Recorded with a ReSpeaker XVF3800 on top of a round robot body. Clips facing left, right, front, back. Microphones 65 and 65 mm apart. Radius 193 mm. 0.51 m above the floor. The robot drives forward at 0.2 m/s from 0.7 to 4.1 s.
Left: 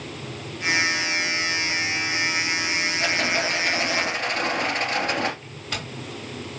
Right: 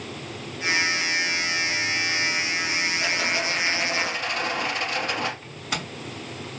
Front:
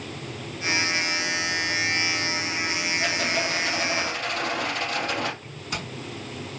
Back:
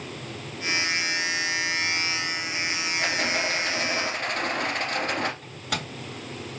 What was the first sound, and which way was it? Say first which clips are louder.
A rattle: left 2 dB, back 1 dB; 135° left.